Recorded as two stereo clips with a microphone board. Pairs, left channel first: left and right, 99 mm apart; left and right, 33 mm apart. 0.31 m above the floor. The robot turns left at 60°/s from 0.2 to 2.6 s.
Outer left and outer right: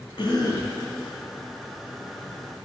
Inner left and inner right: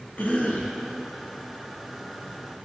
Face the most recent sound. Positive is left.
turn(degrees=-80)